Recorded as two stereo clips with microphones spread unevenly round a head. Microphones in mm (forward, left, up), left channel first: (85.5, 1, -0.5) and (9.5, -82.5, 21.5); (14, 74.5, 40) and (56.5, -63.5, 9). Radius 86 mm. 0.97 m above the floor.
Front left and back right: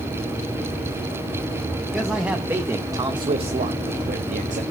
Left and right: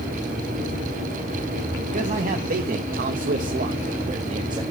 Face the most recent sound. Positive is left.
turn(degrees=-135)